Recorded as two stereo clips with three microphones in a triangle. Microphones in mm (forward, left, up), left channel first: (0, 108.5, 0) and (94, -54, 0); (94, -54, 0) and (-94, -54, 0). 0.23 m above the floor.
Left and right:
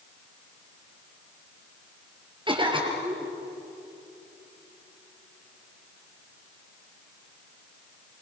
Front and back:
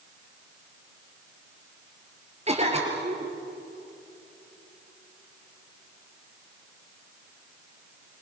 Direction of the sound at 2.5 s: 125° right.